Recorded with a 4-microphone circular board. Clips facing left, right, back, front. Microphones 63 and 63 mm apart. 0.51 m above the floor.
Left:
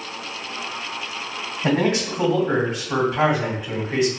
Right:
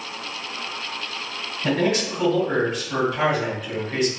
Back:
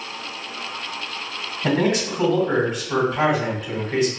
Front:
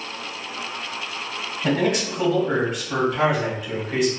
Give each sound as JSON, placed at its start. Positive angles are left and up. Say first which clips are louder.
{"t": 1.6, "sound": "a man speaking", "louder": "left 1 dB, back 1 dB", "azimuth_deg": 105, "distance_m": 1.2}